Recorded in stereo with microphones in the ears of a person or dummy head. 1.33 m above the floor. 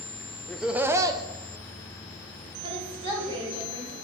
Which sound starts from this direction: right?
A woman speaking, at 2.6 s.